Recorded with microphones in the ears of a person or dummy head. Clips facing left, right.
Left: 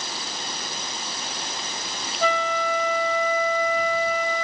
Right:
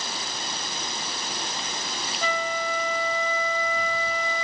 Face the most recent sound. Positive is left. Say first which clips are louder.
# left 5 dB
turn(degrees=50)  # may be behind; listen again after turning